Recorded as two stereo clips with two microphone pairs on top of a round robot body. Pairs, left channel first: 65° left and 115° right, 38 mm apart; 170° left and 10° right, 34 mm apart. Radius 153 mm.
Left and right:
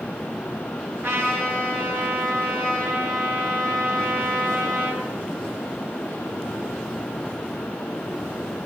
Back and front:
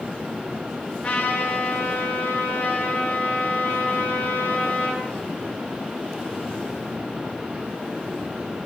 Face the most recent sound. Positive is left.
turn(degrees=-120)